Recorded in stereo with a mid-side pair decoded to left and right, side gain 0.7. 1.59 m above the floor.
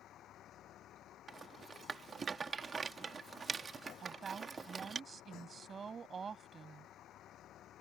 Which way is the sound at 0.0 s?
50° left.